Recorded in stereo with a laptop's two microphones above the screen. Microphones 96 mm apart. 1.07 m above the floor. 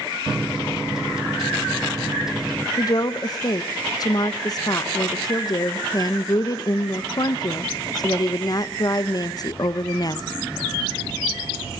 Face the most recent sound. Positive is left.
turn(degrees=40)  # may be behind; listen again after turning